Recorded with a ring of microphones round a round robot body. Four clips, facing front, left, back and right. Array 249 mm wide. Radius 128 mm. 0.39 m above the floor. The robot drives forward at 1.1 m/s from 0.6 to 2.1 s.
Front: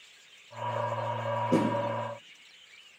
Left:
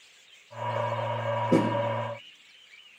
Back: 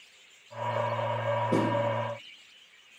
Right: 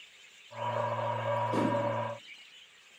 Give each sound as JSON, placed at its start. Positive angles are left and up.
{"t": 1.5, "sound": "a snare drum", "azimuth_deg": 85, "distance_m": 6.5}